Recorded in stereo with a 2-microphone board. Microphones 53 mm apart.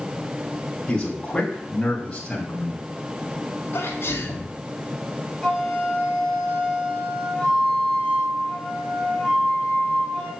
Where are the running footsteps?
I don't hear running footsteps.